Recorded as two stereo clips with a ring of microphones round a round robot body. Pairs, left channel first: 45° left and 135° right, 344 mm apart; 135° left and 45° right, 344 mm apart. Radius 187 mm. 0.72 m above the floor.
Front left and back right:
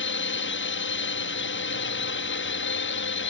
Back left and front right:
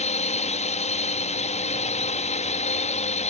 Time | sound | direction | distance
0.0 | a drone | 75° left | ?